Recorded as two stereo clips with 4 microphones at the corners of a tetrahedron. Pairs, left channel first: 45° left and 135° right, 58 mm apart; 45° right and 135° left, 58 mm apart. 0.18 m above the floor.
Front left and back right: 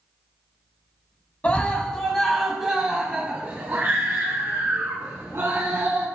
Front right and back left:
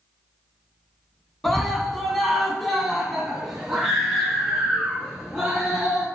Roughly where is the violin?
I don't hear a violin.